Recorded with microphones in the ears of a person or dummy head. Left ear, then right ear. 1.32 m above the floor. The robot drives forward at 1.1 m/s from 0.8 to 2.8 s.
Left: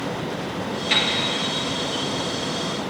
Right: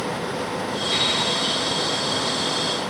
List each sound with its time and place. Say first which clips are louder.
0.9 s a piano: left 2 dB; 55° left (ahead or behind), 4 m; by 1.2 s 60° left (ahead or behind), 4 m